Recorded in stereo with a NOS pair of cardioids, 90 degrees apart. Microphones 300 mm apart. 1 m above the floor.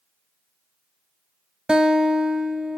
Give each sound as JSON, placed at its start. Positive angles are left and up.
{"t": 1.7, "sound": "a guitar", "azimuth_deg": -5, "distance_m": 1.0}